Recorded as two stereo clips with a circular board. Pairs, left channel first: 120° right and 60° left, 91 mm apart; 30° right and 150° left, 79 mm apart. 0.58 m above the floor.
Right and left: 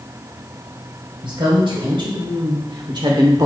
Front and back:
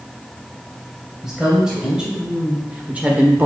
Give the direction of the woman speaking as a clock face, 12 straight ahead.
10 o'clock.